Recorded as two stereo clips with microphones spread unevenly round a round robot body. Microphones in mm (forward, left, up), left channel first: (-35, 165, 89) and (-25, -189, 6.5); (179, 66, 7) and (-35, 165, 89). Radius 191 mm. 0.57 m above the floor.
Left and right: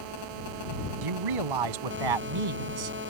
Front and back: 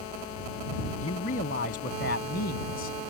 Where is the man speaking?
90° right; by 3.0 s 80° right.